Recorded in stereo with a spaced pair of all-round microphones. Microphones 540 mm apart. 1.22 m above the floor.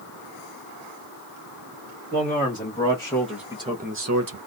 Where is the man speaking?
20° left (ahead or behind), 1.8 m; by 4.4 s 45° right (ahead or behind), 0.7 m.